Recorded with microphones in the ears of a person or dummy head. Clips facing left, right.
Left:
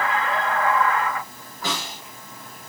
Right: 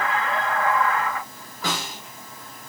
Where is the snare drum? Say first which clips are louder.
Right 1 dB; 65° right (ahead or behind), 4 m.